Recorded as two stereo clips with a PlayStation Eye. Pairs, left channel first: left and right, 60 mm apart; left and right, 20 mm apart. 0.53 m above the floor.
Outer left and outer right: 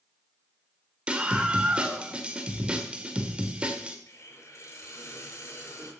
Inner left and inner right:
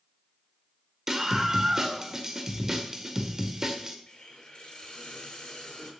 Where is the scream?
20° right (ahead or behind), 1.6 m.